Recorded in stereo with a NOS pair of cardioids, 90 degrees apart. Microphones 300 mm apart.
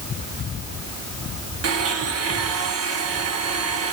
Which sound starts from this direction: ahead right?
A blender, at 1.6 s.